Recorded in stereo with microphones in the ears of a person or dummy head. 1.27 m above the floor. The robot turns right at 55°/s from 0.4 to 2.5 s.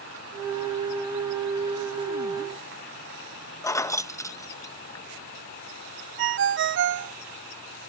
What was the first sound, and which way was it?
Keys jangling, 15° left (ahead or behind).